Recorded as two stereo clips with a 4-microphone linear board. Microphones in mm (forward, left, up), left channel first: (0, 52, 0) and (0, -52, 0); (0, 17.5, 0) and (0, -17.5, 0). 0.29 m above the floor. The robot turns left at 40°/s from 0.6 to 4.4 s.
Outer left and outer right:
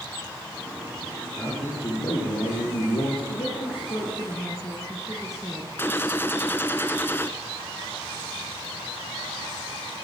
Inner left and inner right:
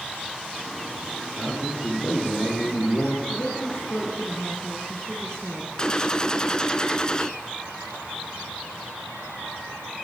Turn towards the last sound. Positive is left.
turn(degrees=20)  # may be behind; listen again after turning